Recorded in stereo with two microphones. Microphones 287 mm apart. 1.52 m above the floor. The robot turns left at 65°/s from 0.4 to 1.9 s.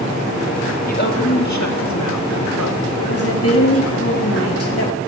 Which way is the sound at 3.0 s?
55° left (ahead or behind).